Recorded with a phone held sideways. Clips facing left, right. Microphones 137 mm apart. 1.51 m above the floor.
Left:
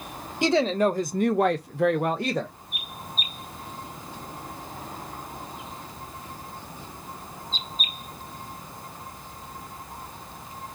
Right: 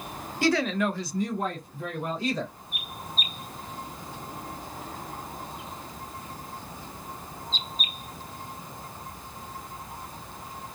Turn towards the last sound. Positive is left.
turn(degrees=55)  # may be behind; listen again after turning